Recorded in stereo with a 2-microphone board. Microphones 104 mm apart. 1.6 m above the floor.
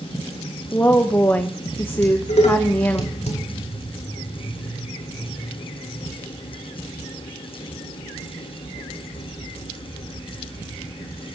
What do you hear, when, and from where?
0.7 s a woman speaking: 20° left (ahead or behind), 1.1 m
2.0 s dishes clattering: 85° left, 5 m